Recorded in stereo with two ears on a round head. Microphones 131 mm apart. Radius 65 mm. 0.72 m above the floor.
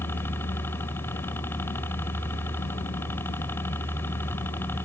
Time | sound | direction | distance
0.0 | a helicopter | 15° left (ahead or behind) | ?